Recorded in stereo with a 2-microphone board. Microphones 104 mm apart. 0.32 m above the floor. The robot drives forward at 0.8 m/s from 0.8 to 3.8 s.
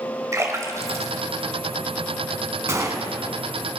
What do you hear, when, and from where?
0.3 s a splash: 30° right (ahead or behind), 1.6 m; by 2.3 s 20° right (ahead or behind), 2.5 m
2.7 s a gunshot: 30° right (ahead or behind), 1.6 m; by 3.1 s 35° right (ahead or behind), 1.3 m